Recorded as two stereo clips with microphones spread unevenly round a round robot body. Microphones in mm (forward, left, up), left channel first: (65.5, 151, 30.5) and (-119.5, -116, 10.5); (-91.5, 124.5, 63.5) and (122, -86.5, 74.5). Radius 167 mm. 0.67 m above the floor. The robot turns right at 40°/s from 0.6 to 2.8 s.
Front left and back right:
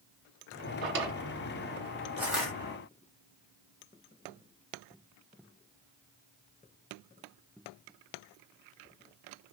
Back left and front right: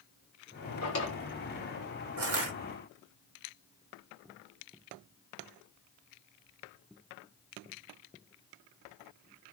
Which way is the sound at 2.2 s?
45° right.